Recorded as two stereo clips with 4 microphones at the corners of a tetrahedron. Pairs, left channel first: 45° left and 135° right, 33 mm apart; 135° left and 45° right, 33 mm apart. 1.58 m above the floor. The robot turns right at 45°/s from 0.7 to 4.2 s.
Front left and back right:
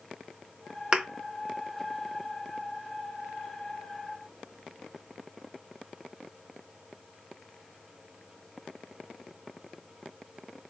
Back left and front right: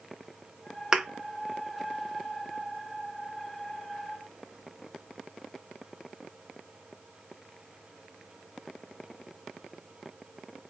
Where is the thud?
110° right, 1.0 m; by 1.1 s 105° right, 1.0 m.